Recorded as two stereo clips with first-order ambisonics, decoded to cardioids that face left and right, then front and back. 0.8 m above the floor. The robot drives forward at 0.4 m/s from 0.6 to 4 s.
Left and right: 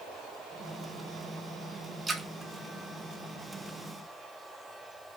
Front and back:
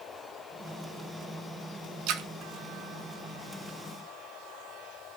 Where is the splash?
170° right, 0.5 m.